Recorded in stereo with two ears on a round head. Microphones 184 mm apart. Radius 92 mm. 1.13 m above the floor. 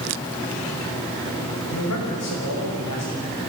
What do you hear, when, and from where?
1.7 s a man speaking: 80° left, 5.5 m